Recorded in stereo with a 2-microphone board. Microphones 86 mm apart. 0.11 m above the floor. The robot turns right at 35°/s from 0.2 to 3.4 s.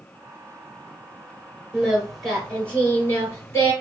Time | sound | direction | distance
1.7 | singing | 15° right | 2 m